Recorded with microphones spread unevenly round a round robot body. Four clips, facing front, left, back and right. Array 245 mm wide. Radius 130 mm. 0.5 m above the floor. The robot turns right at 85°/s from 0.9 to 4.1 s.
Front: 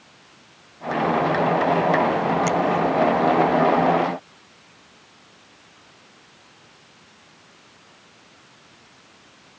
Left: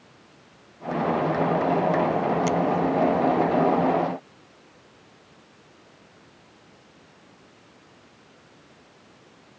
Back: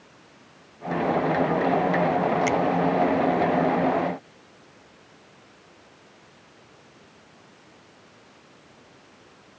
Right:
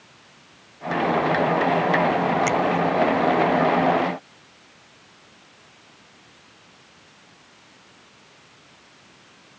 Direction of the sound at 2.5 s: 120° right.